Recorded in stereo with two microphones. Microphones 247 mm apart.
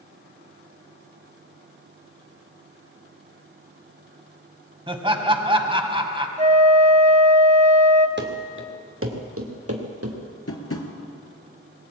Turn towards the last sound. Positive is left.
turn(degrees=65)  # may be behind; listen again after turning